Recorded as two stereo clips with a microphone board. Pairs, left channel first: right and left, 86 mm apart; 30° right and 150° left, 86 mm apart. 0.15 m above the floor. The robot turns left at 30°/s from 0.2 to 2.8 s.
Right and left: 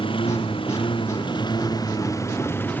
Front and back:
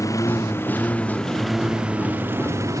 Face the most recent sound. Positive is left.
turn(degrees=-160)